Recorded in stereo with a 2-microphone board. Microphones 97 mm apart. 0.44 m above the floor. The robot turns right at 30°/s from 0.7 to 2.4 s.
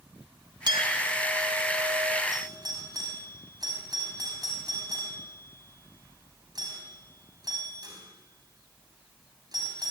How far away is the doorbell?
About 5 m.